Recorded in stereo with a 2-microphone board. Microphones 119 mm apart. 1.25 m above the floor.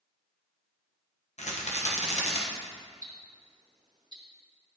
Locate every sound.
1.4 s a rattle: 70° left (ahead or behind), 1.2 m
3.0 s ticking: 40° right (ahead or behind), 1.1 m